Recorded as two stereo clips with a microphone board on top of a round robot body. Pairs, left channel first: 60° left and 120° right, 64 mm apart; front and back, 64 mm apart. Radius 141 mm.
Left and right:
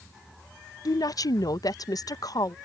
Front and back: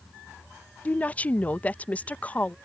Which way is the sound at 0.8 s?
65° left.